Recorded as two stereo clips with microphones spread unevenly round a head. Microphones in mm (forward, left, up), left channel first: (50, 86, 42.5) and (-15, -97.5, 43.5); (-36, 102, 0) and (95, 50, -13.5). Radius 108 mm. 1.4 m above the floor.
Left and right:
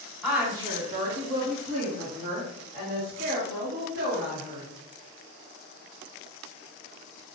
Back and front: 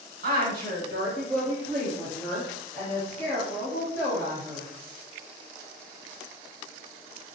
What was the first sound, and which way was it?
A woman speaking, 20° right.